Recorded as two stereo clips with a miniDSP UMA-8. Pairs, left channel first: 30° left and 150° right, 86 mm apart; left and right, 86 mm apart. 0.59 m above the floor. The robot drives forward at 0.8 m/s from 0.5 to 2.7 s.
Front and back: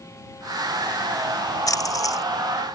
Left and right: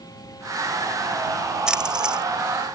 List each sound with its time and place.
1.7 s a splash: 10° right